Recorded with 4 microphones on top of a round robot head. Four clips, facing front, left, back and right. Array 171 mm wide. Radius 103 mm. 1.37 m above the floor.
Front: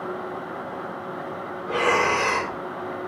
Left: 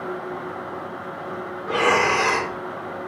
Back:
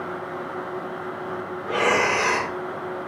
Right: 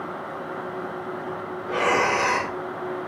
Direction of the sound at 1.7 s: 95° left.